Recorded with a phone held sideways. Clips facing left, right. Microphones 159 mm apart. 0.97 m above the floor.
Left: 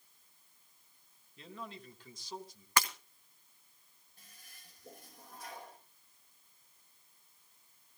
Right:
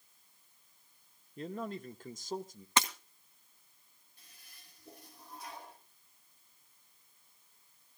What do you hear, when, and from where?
1.4 s a man speaking: 45° right (ahead or behind), 0.9 m
2.8 s breaking glass: 25° right (ahead or behind), 1.5 m
4.2 s a toilet flushing: 50° left (ahead or behind), 5.5 m